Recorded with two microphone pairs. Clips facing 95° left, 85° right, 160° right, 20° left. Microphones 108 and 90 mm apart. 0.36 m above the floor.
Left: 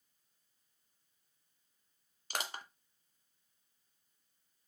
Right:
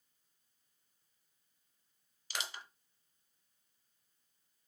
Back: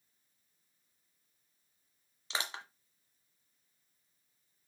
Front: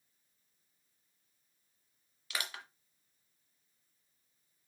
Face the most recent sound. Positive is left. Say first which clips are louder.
# left 3 dB, back 2 dB
turn(degrees=135)